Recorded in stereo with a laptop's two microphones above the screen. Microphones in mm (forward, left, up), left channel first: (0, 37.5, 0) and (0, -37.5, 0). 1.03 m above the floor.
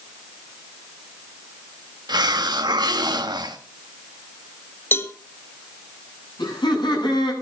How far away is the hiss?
About 1.4 m.